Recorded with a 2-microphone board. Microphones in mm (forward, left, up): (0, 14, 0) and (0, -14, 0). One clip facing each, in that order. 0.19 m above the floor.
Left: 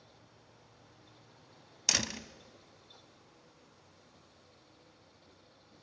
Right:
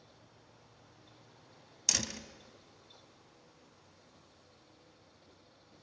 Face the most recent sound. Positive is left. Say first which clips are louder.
# left 3 dB
turn(degrees=20)  # may be behind; listen again after turning